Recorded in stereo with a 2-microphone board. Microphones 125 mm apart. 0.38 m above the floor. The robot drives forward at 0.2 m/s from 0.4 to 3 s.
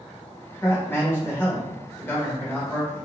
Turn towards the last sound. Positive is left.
turn(degrees=15)  # may be behind; listen again after turning